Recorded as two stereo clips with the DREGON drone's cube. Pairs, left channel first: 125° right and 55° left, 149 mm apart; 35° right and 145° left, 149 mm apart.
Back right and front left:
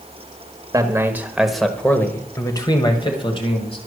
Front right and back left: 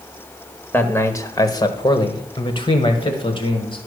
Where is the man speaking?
25° left, 1.0 m; by 3.8 s 85° right, 1.8 m.